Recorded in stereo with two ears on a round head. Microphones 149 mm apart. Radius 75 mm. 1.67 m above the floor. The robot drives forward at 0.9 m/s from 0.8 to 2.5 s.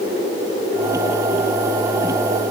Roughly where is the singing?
I don't hear singing.